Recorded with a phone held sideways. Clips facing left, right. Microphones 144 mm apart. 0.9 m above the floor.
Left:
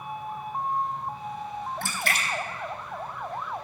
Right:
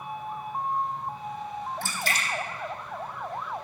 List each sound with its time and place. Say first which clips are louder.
1.8 s a splash: left 1 dB; 55° left (ahead or behind), 0.7 m